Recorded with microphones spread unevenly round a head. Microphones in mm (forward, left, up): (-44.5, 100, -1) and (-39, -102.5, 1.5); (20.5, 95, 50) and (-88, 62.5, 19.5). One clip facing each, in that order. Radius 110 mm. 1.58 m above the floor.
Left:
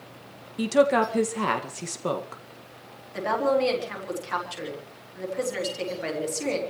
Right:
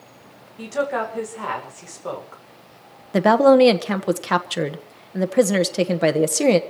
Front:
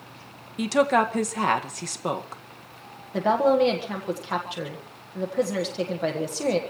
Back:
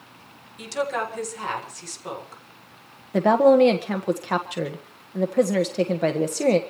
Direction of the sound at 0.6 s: 40° left.